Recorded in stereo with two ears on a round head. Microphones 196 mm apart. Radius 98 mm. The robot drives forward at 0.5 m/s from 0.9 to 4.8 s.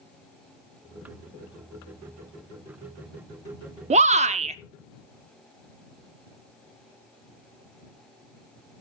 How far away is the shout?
About 0.7 m.